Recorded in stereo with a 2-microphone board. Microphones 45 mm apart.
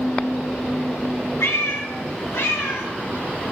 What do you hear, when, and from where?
1.4 s a cat meowing: 80° left, 3 m